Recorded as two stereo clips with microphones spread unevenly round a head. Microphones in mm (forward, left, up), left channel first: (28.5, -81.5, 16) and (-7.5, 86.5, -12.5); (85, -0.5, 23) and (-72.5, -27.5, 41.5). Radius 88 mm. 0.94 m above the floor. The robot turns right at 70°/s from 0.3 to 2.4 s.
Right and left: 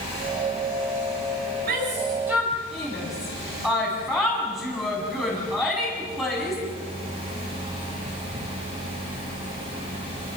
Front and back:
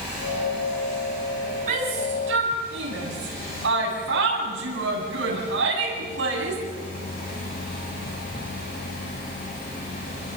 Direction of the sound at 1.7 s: 140° left.